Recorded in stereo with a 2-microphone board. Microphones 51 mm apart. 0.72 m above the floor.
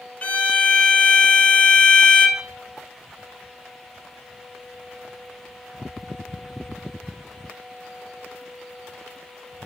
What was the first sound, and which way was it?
A violin, 30° left (ahead or behind).